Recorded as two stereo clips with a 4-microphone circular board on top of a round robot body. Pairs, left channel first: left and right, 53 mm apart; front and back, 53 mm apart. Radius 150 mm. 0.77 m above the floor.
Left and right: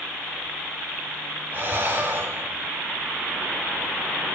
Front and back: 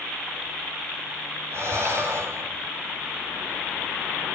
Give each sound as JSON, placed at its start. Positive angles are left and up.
{"t": 1.5, "sound": "breathing", "azimuth_deg": -145, "distance_m": 4.0}